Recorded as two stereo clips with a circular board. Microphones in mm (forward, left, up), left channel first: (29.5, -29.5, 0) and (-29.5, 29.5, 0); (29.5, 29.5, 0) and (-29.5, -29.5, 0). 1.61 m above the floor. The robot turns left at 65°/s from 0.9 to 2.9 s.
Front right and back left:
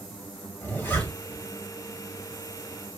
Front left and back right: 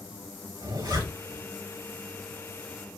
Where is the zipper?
110° right, 3.5 m; by 1.4 s 140° right, 3.5 m.